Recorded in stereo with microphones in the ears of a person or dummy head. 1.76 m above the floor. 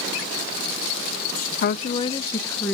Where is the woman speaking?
45° left (ahead or behind), 0.6 m; by 2.8 s 5° left (ahead or behind), 1.4 m.